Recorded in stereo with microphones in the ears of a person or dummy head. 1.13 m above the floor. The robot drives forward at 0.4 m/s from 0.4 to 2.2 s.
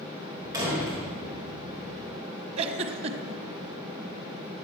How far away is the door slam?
About 4 m.